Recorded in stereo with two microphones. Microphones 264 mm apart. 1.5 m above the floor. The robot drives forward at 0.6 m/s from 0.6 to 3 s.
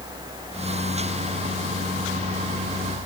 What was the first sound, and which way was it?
Only background noise.